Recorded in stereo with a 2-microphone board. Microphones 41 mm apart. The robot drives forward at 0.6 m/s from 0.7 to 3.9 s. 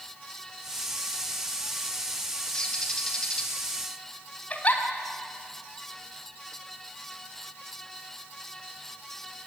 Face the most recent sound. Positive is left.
turn(degrees=35)  # may be behind; listen again after turning